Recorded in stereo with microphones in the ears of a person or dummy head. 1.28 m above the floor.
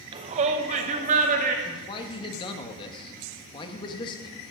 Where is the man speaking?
35° left (ahead or behind), 1.5 m.